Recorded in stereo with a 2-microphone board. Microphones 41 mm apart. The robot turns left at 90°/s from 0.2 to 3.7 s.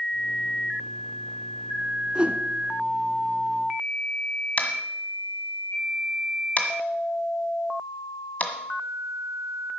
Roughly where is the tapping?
Left.